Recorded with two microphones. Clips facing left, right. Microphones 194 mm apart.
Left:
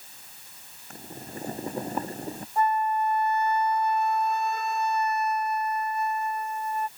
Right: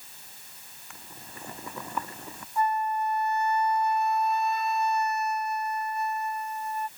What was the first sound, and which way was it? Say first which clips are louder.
Boiling: left 9 dB; 40° left (ahead or behind).